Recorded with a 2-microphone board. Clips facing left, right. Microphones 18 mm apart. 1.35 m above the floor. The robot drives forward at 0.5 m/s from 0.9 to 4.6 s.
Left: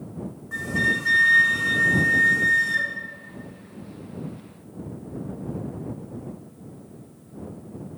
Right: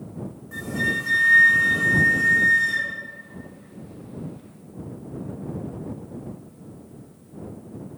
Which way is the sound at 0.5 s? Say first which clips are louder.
Left 2 dB; 15° left (ahead or behind).